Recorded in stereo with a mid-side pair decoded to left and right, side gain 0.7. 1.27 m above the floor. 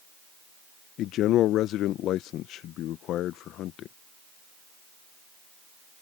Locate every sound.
1.0 s a man speaking: 50° left